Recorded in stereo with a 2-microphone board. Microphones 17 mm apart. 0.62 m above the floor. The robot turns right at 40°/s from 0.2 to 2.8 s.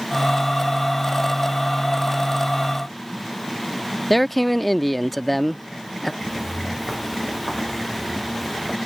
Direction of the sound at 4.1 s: 5° left (ahead or behind).